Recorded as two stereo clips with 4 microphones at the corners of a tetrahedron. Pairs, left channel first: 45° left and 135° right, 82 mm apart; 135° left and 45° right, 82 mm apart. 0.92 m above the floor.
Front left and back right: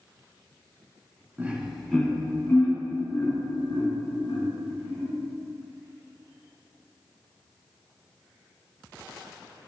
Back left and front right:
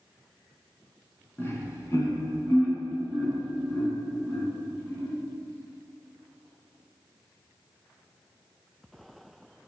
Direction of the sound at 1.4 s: 175° left.